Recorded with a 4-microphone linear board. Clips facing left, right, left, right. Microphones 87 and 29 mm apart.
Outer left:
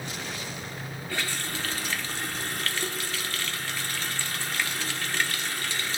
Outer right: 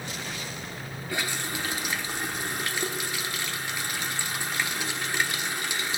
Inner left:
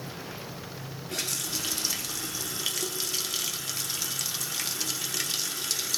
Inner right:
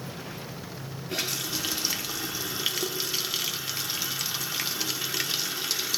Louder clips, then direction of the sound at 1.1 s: Outer right 2 dB, inner right 2 dB; 15° right (ahead or behind).